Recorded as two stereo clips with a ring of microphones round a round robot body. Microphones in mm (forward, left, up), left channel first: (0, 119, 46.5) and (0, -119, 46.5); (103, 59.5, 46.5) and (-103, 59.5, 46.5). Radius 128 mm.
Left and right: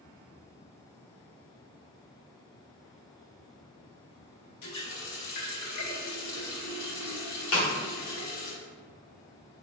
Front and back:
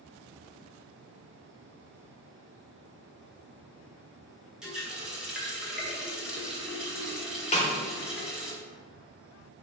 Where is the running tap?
95° left, 1.5 m.